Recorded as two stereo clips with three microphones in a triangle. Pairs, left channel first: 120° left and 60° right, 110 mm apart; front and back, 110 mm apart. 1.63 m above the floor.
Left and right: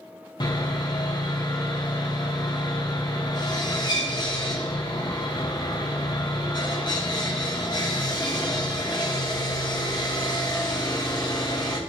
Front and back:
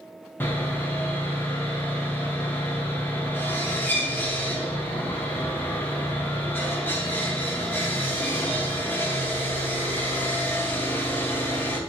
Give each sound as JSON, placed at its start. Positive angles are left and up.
{"t": 0.4, "sound": "sawing", "azimuth_deg": 70, "distance_m": 1.2}